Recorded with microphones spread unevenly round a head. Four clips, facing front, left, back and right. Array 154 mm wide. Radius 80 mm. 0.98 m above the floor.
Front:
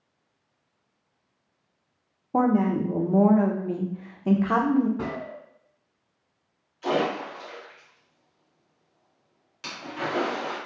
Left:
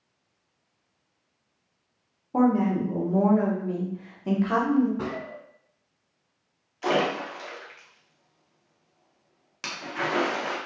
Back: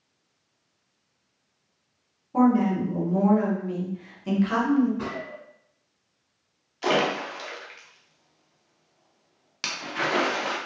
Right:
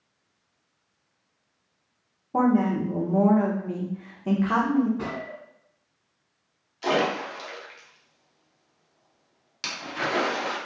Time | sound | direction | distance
2.3 | a woman speaking | 10° right | 0.5 m
5.0 | a gunshot | 35° left | 1.1 m
6.8 | a splash | 160° left | 0.7 m